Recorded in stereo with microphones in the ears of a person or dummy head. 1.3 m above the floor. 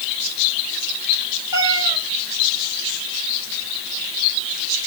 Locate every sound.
1.5 s a cat meowing: 20° right (ahead or behind), 2.5 m